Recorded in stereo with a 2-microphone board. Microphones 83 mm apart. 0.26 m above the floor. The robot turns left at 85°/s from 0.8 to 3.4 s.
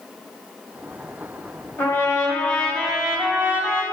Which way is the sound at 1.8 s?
90° left.